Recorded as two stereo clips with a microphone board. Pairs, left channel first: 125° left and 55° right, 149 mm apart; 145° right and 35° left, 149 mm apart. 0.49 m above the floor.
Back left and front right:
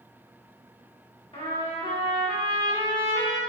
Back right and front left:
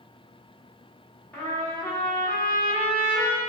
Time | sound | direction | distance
1.3 | a trumpet | 145° left | 1.2 m